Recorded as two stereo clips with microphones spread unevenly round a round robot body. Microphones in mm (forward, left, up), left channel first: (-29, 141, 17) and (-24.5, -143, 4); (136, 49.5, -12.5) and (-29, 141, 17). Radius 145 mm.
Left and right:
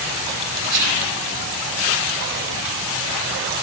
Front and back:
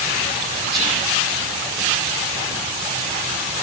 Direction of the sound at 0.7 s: 120° right.